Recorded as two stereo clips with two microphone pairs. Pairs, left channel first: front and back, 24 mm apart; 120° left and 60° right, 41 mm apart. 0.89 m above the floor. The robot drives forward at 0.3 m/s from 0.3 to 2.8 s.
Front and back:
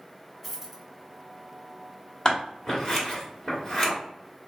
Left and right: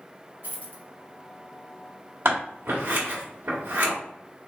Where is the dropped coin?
85° right, 1.2 m; by 0.8 s 95° right, 1.2 m.